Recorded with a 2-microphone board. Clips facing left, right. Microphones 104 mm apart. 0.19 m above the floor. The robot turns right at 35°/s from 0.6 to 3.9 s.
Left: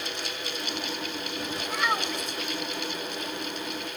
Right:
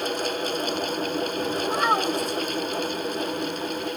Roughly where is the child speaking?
Right.